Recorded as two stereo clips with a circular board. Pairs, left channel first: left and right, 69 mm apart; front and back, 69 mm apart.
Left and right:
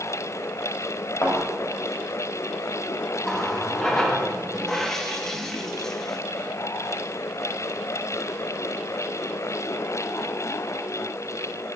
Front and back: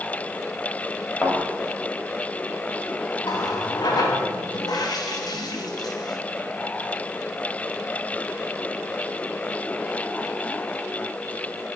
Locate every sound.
1.2 s a thud: 60° left, 2.5 m
3.2 s a running tap: 5° left, 0.9 m